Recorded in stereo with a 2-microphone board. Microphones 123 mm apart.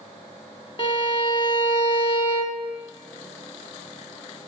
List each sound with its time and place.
0.8 s a violin: 40° left (ahead or behind), 0.5 m